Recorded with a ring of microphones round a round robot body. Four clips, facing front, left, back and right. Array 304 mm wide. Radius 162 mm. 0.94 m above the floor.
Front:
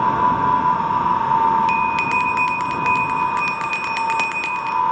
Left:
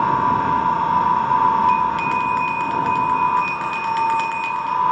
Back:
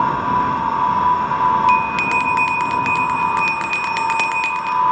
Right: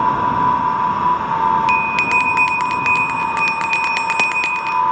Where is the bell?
95° right, 0.6 m.